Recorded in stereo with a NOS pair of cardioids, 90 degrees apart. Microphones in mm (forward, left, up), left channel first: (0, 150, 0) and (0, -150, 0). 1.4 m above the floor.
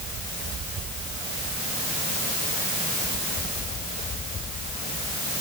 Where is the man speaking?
I don't hear a man speaking.